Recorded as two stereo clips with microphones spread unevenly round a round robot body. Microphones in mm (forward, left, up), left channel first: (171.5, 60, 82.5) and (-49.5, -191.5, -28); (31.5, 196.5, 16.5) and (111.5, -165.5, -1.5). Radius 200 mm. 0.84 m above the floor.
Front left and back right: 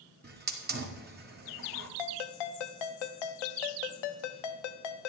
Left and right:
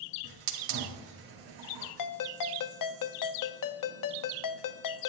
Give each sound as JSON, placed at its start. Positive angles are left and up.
{"t": 0.2, "sound": "a hiss", "azimuth_deg": -85, "distance_m": 1.8}
{"t": 2.0, "sound": "a ringtone", "azimuth_deg": 65, "distance_m": 0.7}